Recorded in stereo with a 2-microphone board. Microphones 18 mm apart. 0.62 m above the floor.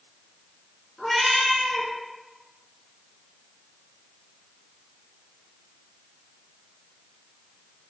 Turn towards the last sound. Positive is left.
turn(degrees=10)  # may be behind; listen again after turning